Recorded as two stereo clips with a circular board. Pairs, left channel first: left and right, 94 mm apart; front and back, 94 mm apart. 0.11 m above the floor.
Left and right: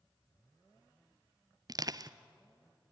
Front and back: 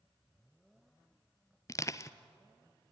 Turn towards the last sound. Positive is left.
turn(degrees=-50)